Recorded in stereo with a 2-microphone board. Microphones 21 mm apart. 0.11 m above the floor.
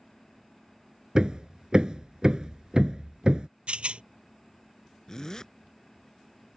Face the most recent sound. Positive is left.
turn(degrees=30)  # may be behind; listen again after turning